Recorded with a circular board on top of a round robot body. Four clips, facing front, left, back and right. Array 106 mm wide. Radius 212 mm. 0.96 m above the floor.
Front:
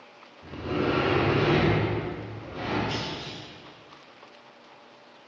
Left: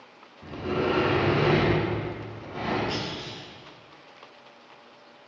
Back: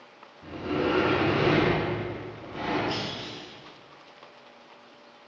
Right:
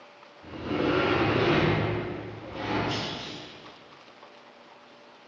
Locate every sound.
0.4 s a sliding door: 115° left, 4 m
2.9 s a clunk: 120° left, 2.5 m